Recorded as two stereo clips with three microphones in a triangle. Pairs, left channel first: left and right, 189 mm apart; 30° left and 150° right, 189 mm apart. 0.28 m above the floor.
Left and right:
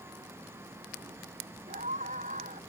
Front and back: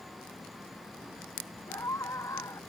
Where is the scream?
45° right.